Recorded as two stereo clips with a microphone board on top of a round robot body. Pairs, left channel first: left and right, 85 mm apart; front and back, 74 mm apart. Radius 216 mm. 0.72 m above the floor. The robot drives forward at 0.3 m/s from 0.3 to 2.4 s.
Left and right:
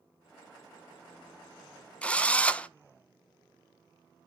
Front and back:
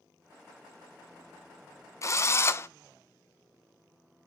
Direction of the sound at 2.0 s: 20° left.